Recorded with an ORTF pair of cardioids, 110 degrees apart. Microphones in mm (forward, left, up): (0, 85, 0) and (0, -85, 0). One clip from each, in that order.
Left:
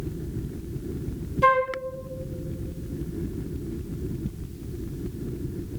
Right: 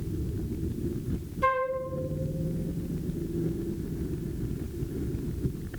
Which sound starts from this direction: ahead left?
A flute, at 1.4 s.